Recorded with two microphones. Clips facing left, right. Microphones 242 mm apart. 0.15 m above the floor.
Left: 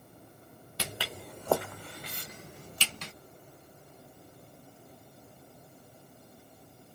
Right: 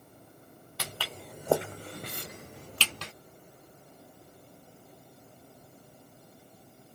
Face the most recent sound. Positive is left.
turn(degrees=-80)